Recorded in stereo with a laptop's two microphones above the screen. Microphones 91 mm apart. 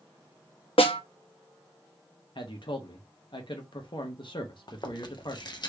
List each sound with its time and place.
0.8 s a snare drum: 85° left, 0.8 m
2.4 s a man speaking: 60° left (ahead or behind), 0.9 m
4.7 s chewing: 50° left (ahead or behind), 0.8 m